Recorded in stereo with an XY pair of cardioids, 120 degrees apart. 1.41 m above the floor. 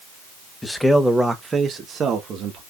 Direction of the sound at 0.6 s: 10° left.